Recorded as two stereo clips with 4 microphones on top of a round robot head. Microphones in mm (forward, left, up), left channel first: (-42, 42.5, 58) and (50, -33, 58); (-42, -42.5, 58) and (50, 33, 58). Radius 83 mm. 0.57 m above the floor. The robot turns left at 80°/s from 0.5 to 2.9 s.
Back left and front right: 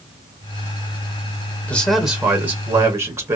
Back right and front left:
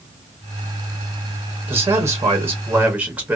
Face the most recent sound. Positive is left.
turn(degrees=-25)